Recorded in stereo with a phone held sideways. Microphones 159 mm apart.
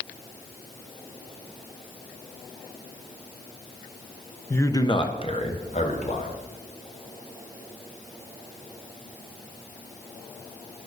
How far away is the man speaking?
About 0.6 m.